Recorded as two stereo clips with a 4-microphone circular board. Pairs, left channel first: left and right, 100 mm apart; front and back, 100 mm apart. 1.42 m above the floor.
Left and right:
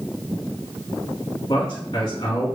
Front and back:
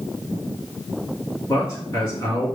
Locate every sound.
1.5 s a man speaking: 60° left, 2 m